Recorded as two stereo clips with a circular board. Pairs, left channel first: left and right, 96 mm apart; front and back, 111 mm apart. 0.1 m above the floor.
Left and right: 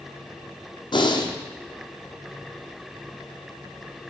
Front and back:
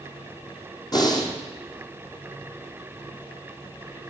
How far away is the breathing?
About 1.4 m.